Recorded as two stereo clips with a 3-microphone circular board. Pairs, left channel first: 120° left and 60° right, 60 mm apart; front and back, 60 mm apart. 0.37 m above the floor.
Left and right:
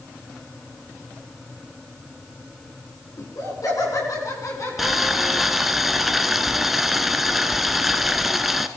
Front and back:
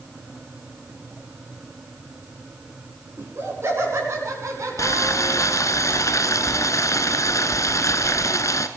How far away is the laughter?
About 4.5 m.